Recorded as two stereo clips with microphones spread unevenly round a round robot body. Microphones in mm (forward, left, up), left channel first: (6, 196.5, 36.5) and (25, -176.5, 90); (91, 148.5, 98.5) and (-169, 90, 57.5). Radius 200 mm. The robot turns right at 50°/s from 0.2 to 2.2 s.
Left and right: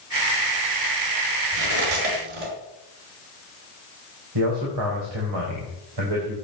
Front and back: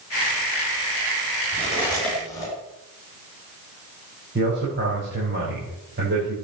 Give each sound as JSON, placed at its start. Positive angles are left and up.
{"t": 1.5, "sound": "cutlery clinking", "azimuth_deg": -100, "distance_m": 4.5}
{"t": 4.3, "sound": "a man speaking", "azimuth_deg": -115, "distance_m": 4.5}